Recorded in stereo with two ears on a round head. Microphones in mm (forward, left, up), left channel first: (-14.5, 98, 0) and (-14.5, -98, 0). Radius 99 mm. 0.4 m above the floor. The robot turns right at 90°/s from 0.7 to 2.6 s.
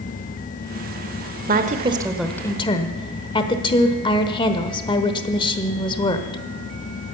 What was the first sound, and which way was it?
A woman speaking, 70° right.